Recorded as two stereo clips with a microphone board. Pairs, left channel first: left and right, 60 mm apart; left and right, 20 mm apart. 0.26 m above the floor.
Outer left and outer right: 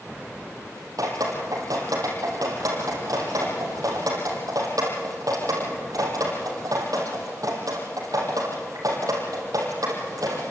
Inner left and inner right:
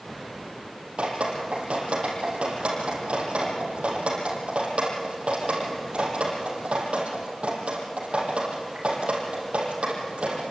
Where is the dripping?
85° right, 5 m.